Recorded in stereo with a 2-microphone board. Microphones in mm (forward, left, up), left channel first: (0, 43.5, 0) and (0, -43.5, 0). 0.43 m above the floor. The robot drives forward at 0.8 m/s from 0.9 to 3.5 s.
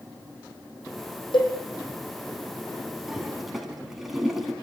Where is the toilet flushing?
5° right (ahead or behind), 4 m.